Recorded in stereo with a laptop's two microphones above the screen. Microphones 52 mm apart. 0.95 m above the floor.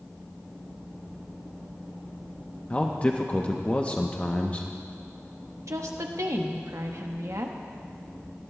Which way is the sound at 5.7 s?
75° right (ahead or behind).